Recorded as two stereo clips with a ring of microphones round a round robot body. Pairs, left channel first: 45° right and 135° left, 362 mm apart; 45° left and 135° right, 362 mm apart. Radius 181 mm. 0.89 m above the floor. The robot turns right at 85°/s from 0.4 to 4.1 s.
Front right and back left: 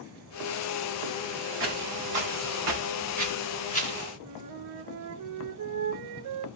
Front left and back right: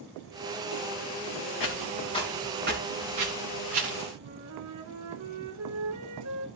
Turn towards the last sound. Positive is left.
turn(degrees=180)